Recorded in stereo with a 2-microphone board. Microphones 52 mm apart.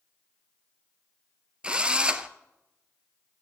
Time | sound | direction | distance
1.6 | a drill | 20° right (ahead or behind) | 0.8 m